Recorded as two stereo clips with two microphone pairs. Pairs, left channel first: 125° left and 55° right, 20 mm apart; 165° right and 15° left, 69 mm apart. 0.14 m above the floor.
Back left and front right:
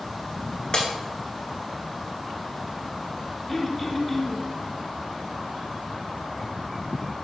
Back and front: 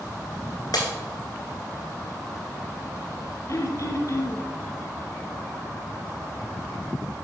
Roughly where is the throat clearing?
Behind.